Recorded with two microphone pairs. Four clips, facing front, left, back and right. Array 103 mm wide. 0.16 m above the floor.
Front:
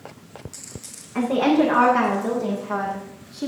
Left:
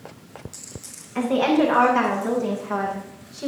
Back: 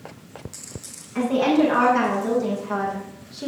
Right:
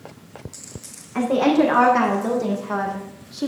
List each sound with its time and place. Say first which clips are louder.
1.1 s a woman speaking: right 2 dB, even; 65° right, 7.5 m; by 3.5 s 85° right, 5 m